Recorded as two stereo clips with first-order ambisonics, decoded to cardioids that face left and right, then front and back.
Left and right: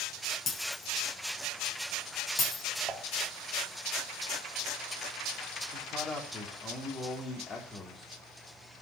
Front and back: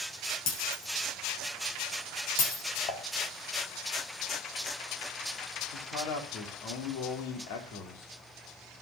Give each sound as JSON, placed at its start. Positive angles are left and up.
{"t": 0.5, "sound": "breaking glass", "azimuth_deg": 25, "distance_m": 7.5}
{"t": 2.9, "sound": "dishes clattering", "azimuth_deg": -20, "distance_m": 2.5}
{"t": 5.7, "sound": "a man speaking", "azimuth_deg": 20, "distance_m": 4.5}